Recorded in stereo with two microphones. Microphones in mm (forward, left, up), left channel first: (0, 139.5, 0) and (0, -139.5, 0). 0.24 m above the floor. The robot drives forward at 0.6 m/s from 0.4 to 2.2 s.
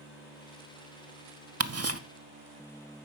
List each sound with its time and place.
1.6 s ticking: 60° right (ahead or behind), 0.5 m; by 2.0 s 55° right (ahead or behind), 0.6 m